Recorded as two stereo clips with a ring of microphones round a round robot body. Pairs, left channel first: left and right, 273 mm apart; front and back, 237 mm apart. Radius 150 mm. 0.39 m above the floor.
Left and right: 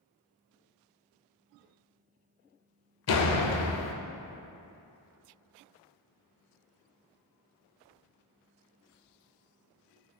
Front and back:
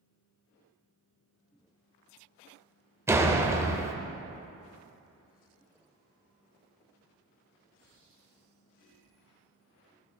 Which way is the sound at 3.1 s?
100° left.